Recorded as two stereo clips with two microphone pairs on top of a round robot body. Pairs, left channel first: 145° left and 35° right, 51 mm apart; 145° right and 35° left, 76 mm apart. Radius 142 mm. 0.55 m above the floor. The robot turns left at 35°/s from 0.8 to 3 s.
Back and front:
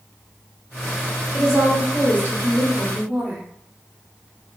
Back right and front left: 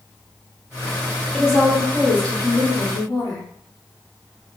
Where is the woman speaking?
45° right, 1.6 m; by 3.5 s 100° right, 1.6 m.